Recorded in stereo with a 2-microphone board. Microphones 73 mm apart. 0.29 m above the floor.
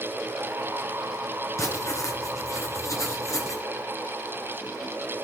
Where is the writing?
45° left (ahead or behind), 3 m.